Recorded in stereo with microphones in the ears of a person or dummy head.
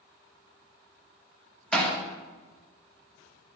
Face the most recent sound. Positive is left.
turn(degrees=5)  # may be behind; listen again after turning